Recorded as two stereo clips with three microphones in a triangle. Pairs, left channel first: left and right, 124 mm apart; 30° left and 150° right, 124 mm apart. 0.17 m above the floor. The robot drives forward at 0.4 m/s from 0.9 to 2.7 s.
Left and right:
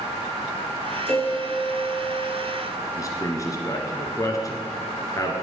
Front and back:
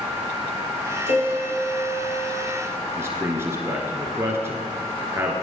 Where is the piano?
20° left, 3.5 m; by 2.5 s 25° left, 3 m.